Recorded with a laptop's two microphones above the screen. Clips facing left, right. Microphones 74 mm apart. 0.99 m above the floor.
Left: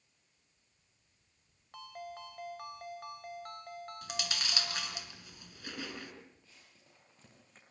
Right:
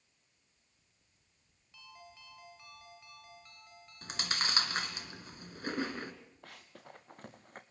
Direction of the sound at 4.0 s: 40° right (ahead or behind).